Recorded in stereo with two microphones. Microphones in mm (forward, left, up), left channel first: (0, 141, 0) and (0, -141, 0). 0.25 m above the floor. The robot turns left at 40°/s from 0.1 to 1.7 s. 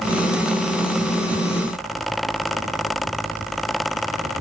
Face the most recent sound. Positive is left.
No sound to turn to.